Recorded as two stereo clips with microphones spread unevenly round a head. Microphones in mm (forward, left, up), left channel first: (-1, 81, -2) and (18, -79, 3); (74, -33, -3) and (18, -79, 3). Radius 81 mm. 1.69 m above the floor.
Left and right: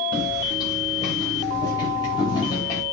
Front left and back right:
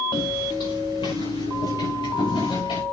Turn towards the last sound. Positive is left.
turn(degrees=30)